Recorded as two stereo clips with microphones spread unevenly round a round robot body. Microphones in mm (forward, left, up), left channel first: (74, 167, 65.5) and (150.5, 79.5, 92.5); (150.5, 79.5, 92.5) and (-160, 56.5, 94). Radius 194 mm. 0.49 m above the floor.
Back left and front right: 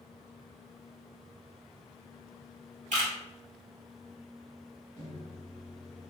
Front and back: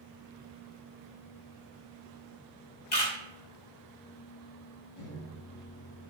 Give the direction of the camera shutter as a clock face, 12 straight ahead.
2 o'clock.